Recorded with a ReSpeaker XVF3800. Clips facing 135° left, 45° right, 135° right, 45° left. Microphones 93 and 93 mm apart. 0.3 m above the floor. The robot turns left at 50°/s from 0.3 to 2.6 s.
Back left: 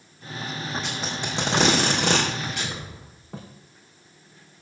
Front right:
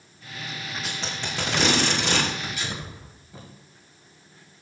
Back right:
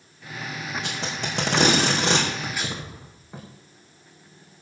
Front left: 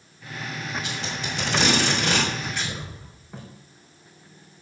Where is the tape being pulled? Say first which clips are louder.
Back left 2 dB, back right 1 dB; 130° right, 4.5 m; by 3.4 s 140° left, 4.5 m.